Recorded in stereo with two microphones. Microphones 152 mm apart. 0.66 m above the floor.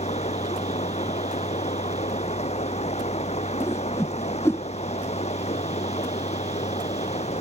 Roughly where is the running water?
Left.